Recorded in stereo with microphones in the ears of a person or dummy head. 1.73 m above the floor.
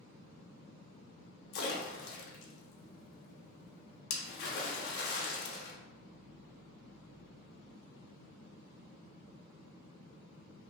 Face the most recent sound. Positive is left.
turn(degrees=60)  # may be behind; listen again after turning